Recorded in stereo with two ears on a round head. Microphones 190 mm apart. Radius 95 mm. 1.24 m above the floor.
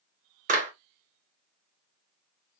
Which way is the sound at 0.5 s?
40° right (ahead or behind).